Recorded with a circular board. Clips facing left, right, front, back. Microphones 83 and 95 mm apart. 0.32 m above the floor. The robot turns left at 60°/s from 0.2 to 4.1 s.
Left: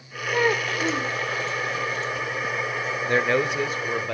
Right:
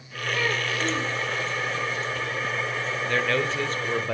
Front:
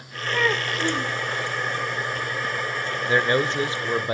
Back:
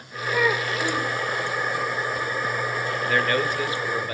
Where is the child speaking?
100° left, 0.9 m; by 1.1 s 50° left, 0.9 m.